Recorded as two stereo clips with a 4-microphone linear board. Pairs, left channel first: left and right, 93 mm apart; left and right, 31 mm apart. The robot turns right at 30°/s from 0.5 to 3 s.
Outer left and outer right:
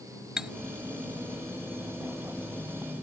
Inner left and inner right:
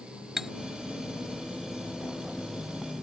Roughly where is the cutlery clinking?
Centre.